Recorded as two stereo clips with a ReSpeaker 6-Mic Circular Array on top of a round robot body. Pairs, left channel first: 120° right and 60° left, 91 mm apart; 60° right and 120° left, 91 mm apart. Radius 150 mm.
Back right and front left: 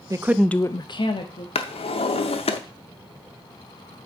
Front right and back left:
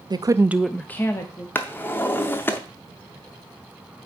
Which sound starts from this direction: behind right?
A drawer, at 1.6 s.